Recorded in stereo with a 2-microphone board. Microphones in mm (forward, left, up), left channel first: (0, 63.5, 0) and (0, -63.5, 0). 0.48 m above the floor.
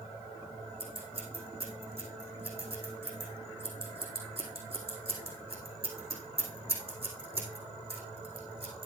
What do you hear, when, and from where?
0.8 s scissors: 50° right (ahead or behind), 4 m